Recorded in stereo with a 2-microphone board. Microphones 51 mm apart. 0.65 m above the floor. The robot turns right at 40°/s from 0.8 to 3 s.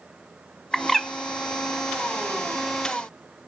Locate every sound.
0.7 s a bird: 10° left (ahead or behind), 0.6 m; by 1.1 s centre (ahead or behind), 0.6 m